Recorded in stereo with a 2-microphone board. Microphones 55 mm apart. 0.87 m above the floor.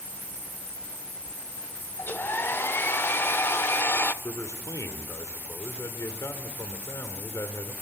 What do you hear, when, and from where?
2.0 s a hair dryer: 40° left (ahead or behind), 0.6 m
4.2 s a man speaking: 70° left (ahead or behind), 2 m